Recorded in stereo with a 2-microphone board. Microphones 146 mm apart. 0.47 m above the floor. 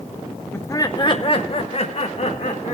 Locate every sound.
0.5 s laughter: 15° left (ahead or behind), 0.8 m; by 2.8 s 55° left (ahead or behind), 1.8 m